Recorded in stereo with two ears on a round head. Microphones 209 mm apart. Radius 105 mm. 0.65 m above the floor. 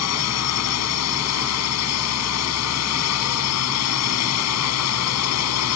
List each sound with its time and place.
0.0 s a drone: 75° left (ahead or behind)